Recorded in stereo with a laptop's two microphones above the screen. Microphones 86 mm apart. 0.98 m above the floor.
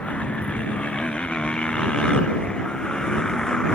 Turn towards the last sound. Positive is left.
turn(degrees=10)  # may be behind; listen again after turning